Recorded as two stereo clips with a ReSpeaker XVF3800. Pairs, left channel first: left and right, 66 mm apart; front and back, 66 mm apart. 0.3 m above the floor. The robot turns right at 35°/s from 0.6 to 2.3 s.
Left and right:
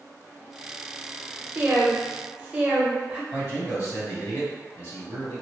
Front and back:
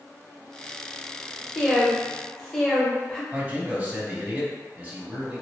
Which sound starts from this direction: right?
A woman speaking, at 1.6 s.